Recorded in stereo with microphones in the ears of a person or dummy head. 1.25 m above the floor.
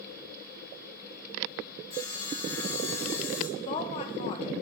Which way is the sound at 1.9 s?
15° left (ahead or behind).